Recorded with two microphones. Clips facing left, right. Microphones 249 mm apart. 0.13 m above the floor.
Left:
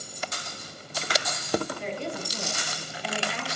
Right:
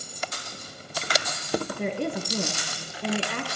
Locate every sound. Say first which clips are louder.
1.7 s a woman speaking: right 5 dB; 55° right (ahead or behind), 1.9 m